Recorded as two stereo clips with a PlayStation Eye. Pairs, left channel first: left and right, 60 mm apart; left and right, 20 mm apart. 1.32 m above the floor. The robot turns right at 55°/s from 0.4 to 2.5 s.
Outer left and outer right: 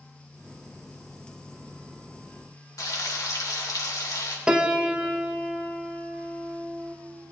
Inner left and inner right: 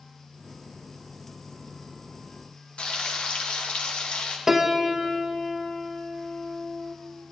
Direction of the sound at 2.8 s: 65° left (ahead or behind).